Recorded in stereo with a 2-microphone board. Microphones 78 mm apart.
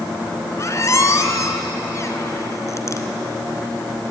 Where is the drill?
I don't hear a drill.